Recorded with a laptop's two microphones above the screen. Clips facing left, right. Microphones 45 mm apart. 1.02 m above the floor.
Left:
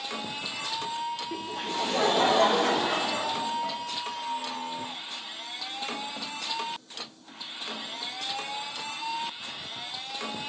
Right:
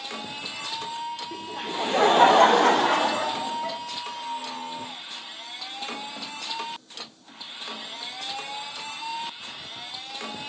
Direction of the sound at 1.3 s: 10° left (ahead or behind).